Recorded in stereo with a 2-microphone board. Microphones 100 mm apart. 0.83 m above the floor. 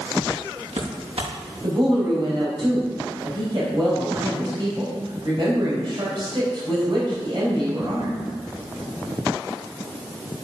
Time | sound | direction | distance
0.3 | footsteps | 80° right | 5.5 m
1.6 | a woman speaking | 50° right (ahead or behind) | 5 m